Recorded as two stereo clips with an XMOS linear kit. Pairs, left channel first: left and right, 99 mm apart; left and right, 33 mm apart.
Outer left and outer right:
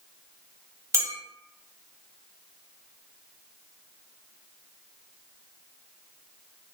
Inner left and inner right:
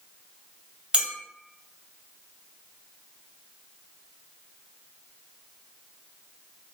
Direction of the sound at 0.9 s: 30° right (ahead or behind).